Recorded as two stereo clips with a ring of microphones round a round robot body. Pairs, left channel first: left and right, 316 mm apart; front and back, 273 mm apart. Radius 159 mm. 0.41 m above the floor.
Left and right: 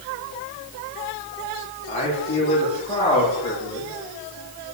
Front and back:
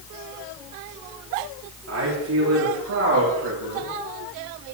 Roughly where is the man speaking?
Behind.